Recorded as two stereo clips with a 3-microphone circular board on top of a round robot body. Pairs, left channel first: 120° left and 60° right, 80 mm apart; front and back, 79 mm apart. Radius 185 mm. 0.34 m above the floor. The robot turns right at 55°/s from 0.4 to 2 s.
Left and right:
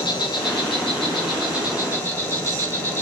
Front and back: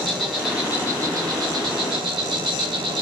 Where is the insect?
95° left, 0.8 m; by 3.0 s straight behind, 0.8 m.